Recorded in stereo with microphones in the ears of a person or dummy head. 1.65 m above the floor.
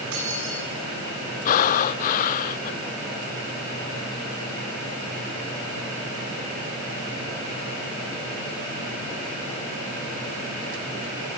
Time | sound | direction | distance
0.1 | keys jangling | 85° right | 10 m
1.4 | breathing | 45° left (ahead or behind) | 0.6 m